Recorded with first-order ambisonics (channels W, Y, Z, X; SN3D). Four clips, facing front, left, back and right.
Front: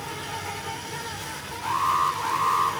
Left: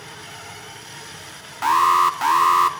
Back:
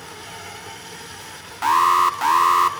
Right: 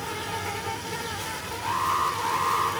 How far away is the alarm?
About 1.5 m.